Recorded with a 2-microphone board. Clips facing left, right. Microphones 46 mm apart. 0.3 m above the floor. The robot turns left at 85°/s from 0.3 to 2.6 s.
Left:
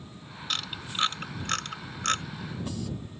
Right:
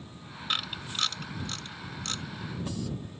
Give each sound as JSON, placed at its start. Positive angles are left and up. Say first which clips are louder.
{"t": 0.5, "sound": "a camera shutter", "louder": "right 1 dB", "side_deg": -15}